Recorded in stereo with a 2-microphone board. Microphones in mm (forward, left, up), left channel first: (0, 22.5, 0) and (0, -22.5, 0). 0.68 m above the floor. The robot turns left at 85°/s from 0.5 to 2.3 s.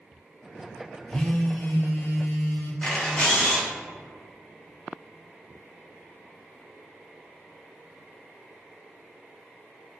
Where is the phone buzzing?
170° left, 0.5 m; by 2.7 s 65° left, 0.5 m.